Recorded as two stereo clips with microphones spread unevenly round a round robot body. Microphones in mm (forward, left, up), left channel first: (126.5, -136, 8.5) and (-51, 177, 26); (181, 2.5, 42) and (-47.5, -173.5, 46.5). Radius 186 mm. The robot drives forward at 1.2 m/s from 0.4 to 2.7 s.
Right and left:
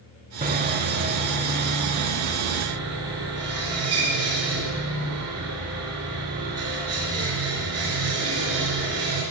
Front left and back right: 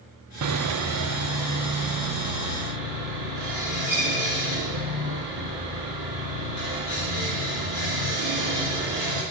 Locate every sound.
0.4 s sawing: 170° right, 0.7 m; by 9.2 s straight behind, 3.5 m